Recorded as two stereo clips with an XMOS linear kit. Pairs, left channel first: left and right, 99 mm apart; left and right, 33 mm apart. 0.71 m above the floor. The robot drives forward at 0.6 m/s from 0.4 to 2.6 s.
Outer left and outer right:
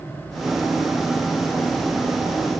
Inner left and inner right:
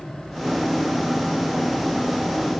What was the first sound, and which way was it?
Only background noise.